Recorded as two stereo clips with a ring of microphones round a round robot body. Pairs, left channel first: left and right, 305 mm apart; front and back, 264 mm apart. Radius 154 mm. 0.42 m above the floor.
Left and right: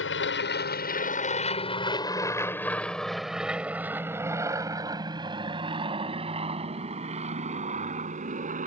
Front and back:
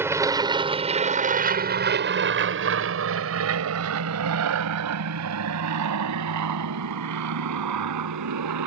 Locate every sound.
0.0 s an aircraft: 105° left; by 8.7 s 155° right